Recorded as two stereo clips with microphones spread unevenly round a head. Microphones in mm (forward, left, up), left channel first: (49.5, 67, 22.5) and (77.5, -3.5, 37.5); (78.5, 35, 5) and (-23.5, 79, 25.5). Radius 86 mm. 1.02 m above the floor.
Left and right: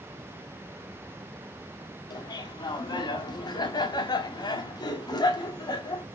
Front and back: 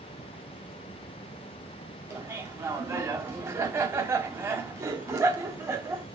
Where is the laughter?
90° left, 2.5 m.